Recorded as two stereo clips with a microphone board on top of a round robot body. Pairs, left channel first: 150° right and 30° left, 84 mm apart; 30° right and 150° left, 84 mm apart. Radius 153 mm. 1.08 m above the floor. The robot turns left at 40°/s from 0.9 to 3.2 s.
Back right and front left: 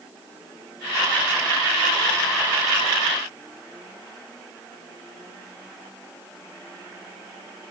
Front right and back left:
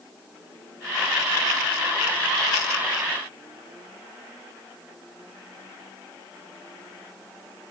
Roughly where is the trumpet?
No trumpet in this recording.